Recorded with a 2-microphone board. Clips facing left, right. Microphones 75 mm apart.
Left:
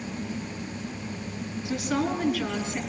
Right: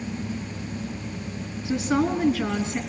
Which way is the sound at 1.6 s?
25° right (ahead or behind).